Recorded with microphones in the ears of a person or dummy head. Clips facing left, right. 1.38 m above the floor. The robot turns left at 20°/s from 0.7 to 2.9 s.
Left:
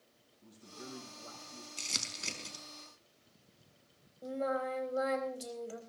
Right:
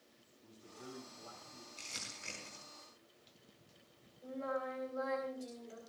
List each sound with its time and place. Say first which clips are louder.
0.4 s a man speaking: left 3 dB; 30° left (ahead or behind), 7 m; by 1.7 s 50° left (ahead or behind), 7 m
1.8 s crumpling: left 6 dB; 75° left (ahead or behind), 4.5 m; by 2.6 s 60° left (ahead or behind), 4.5 m
4.2 s singing: left 5 dB; 75° left (ahead or behind), 4 m